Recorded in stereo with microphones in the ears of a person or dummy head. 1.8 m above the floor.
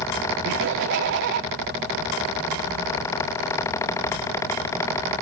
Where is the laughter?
55° right (ahead or behind), 1.1 m.